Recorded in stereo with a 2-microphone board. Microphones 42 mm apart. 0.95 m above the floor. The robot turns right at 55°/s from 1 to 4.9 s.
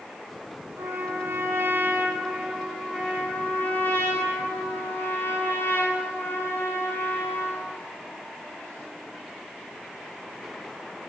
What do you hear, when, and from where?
0.8 s a trumpet: 95° right, 9.5 m; by 7.7 s 120° left, 9.5 m